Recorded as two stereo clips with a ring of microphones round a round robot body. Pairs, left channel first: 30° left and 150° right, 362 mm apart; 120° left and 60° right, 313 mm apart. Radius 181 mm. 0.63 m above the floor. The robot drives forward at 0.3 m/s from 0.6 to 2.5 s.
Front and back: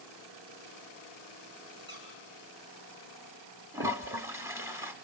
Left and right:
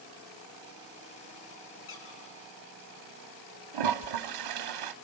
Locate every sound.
1.9 s a squeak: 145° left, 5 m; by 2.2 s 150° left, 5.5 m
3.7 s a toilet flushing: 65° right, 0.8 m